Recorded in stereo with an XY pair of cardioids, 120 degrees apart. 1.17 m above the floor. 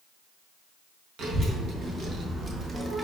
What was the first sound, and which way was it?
A child speaking, 55° right.